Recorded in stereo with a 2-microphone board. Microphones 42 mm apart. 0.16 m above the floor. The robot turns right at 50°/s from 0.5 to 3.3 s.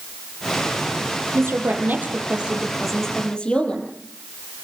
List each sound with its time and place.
1.3 s a woman speaking: 75° right, 5.5 m; by 3.9 s 20° left, 5.5 m